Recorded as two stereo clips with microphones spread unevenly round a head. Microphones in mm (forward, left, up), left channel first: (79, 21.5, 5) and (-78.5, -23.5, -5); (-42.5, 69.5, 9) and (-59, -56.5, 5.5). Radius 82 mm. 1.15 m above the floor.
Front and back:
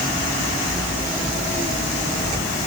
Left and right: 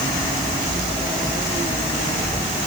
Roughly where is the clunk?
No clunk in this recording.